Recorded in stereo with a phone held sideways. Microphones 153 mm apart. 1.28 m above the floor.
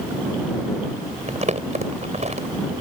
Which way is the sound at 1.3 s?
50° right (ahead or behind).